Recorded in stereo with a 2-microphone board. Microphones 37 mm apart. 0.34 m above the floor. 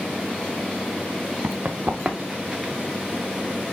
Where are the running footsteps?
60° right (ahead or behind), 1.4 m; by 2.7 s centre (ahead or behind), 2 m.